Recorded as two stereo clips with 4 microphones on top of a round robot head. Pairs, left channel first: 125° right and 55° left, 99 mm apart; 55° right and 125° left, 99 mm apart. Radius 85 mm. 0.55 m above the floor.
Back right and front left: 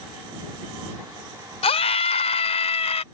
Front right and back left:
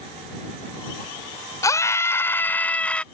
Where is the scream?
110° right; by 3.0 s 135° right.